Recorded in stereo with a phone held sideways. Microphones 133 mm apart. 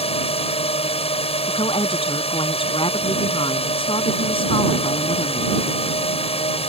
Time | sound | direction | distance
0.0 | a drone | 50° left (ahead or behind) | ?
1.5 | a woman speaking | 40° left (ahead or behind) | ?